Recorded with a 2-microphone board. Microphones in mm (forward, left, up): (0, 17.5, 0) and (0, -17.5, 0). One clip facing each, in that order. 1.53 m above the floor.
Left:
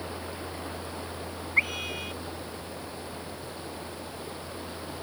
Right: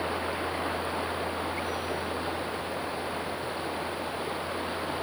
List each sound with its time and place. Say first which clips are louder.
0.0 s running water: right 7 dB; 35° right (ahead or behind)
1.6 s a scream: left 3 dB; 65° left (ahead or behind)